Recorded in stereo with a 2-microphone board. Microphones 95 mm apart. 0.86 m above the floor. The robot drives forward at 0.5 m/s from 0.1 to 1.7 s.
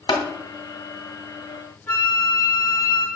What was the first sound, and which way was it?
Tapping, 75° left (ahead or behind).